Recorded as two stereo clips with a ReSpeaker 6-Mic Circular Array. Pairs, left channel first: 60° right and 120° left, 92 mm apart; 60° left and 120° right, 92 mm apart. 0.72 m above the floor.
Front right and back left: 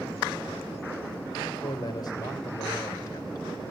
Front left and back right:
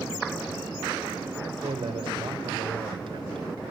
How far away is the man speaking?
About 3 m.